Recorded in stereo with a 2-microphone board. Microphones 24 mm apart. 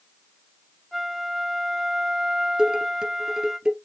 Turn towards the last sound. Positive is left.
turn(degrees=-35)  # may be behind; listen again after turning